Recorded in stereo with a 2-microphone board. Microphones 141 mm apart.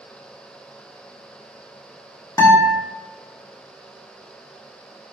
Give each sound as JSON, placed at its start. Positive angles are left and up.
{"t": 2.4, "sound": "a guitar", "side_deg": 25, "distance_m": 0.8}